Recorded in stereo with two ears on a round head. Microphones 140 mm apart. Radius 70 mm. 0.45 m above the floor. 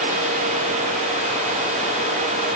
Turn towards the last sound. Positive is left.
No sound to turn to.